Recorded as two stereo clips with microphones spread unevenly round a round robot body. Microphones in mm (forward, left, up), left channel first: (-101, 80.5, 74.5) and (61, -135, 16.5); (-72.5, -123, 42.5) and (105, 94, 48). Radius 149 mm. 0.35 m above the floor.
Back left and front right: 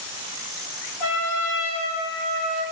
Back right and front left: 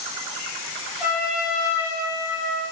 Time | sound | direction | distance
1.0 | a trumpet | 135° left | 5.5 m